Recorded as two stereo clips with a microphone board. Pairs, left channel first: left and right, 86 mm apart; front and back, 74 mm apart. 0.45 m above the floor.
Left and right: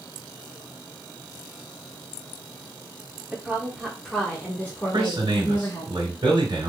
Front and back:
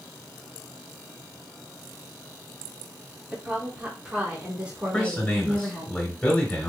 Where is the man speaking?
75° right, 1.6 m.